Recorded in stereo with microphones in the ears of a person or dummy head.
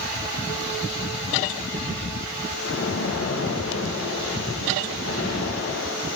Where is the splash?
70° left (ahead or behind), 1.2 m.